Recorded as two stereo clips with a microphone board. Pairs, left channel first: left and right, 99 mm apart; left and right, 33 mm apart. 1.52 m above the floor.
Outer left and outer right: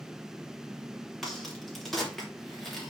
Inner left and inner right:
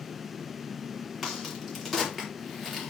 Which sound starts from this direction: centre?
A crack, at 1.2 s.